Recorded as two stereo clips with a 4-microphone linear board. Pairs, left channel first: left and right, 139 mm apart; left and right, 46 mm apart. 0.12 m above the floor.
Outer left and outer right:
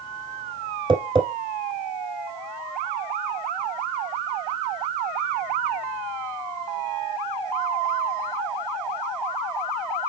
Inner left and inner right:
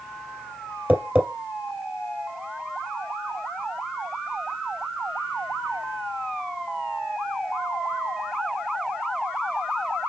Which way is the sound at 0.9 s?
35° right (ahead or behind).